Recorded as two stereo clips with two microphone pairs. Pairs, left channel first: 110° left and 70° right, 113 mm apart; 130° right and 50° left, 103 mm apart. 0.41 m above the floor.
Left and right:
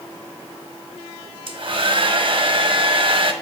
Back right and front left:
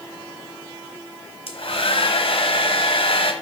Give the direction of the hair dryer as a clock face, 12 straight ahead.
4 o'clock.